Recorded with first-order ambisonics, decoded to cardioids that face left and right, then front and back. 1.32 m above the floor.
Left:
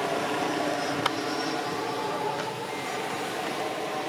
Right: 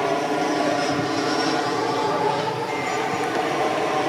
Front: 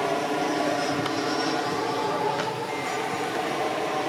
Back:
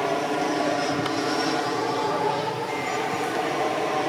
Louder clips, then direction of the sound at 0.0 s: Right 6 dB, back 1 dB; 90° right.